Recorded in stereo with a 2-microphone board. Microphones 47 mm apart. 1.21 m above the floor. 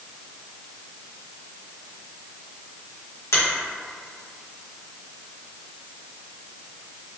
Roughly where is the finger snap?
Left.